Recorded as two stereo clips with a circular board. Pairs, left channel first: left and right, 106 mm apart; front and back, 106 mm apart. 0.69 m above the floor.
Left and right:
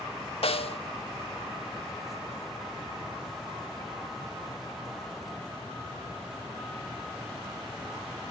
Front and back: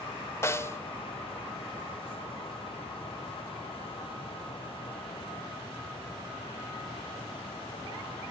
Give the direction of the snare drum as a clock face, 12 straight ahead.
10 o'clock.